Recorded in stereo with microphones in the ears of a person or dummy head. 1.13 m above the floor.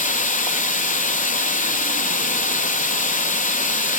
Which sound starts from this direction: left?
Running water, at 0.0 s.